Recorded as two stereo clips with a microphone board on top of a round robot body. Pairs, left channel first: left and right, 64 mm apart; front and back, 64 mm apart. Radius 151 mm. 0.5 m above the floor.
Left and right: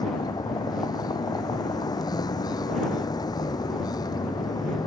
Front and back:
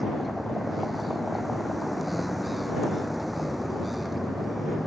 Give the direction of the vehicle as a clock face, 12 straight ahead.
9 o'clock.